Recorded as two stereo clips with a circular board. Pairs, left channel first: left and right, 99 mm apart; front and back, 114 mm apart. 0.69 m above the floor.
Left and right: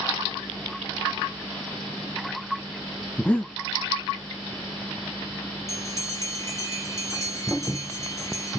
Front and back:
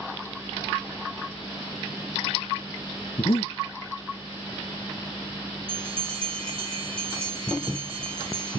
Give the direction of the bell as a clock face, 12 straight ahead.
7 o'clock.